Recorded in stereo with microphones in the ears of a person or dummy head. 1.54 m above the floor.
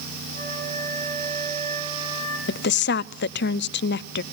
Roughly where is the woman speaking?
Left.